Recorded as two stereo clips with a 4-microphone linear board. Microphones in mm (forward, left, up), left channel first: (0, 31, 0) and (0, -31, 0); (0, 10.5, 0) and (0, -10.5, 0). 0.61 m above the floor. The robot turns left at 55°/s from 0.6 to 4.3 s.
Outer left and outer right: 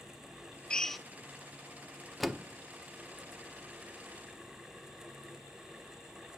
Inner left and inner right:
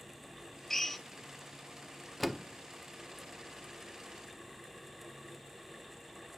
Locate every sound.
0.7 s a drill: 15° left (ahead or behind), 1.0 m; by 1.0 s centre (ahead or behind), 1.0 m
2.2 s a door slam: centre (ahead or behind), 1.0 m; by 2.4 s 10° right (ahead or behind), 1.0 m